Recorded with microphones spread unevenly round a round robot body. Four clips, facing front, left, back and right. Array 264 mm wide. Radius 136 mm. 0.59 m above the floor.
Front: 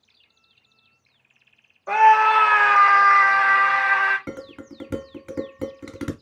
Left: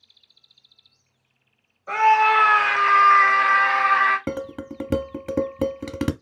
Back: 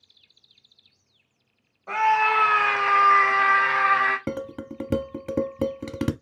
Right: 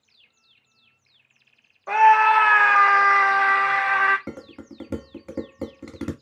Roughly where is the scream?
Ahead right.